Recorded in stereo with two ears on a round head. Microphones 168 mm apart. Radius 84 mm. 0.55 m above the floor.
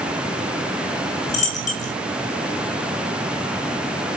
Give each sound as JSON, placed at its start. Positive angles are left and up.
{"t": 1.3, "sound": "a dropped coin", "side_deg": 40, "distance_m": 1.3}